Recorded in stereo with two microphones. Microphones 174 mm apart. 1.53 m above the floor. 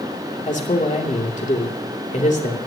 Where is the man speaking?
45° left (ahead or behind), 2.5 m.